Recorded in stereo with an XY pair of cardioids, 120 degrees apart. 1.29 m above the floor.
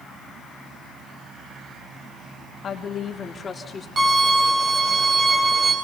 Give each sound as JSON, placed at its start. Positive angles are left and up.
{"t": 2.6, "sound": "a woman speaking", "azimuth_deg": 45, "distance_m": 2.5}
{"t": 4.0, "sound": "a violin", "azimuth_deg": -30, "distance_m": 5.5}